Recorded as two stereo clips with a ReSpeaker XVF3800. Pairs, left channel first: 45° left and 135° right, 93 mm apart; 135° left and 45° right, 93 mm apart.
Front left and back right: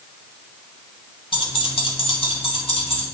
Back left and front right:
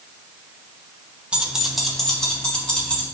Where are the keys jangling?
30° left, 1.1 m; by 3.0 s 55° left, 3 m.